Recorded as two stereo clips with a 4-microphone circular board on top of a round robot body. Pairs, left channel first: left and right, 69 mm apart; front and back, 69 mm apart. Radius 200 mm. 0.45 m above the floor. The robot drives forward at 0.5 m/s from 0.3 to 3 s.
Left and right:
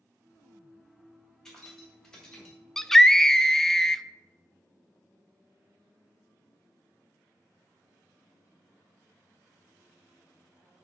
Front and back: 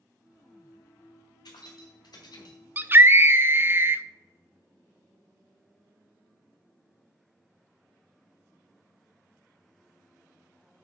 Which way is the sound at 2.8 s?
165° left.